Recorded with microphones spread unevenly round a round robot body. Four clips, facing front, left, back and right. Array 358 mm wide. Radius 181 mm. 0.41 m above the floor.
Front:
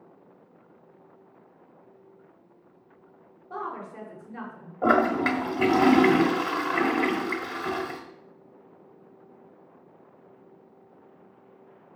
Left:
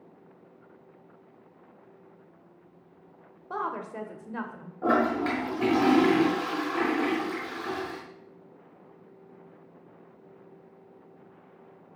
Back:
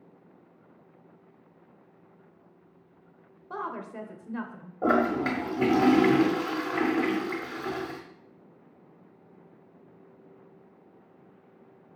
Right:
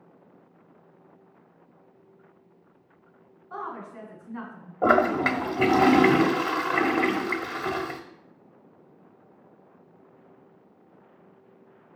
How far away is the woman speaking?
About 1.8 m.